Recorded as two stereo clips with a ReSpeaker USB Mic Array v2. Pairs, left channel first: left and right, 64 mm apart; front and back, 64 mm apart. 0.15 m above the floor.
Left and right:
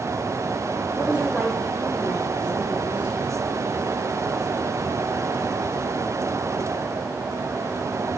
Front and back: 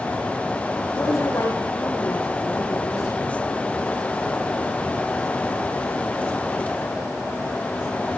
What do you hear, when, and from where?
0.9 s a woman speaking: 20° right, 9.5 m